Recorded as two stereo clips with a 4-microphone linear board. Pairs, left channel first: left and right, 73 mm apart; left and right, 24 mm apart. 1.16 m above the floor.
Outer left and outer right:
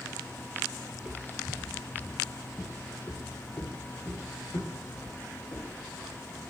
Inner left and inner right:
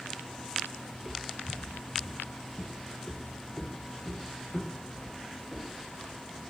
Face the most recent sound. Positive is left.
turn(degrees=80)